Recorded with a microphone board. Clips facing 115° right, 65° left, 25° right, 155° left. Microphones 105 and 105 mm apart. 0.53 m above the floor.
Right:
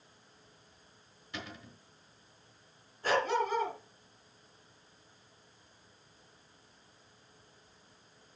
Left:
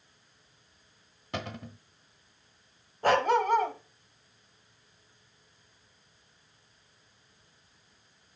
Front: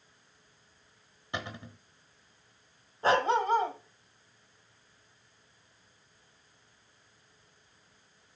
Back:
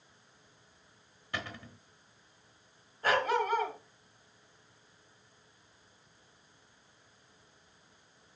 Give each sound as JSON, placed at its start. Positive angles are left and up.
{"t": 1.3, "sound": "a cupboard door", "azimuth_deg": 45, "distance_m": 1.1}
{"t": 3.0, "sound": "a dog barking", "azimuth_deg": 40, "distance_m": 1.3}